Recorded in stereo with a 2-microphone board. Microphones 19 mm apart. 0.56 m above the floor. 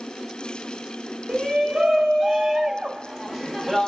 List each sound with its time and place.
1.3 s a shout: 50° right (ahead or behind), 1.9 m; by 3.9 s 10° right (ahead or behind), 0.8 m